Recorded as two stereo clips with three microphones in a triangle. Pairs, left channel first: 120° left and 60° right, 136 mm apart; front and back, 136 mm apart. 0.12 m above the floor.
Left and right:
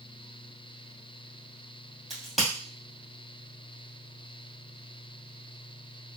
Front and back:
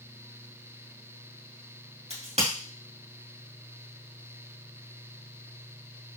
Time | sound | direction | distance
2.1 | a crack | 150° right | 2.5 m